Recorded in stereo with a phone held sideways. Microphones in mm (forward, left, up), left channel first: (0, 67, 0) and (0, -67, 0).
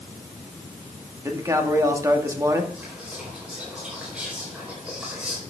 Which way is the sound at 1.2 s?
20° right (ahead or behind).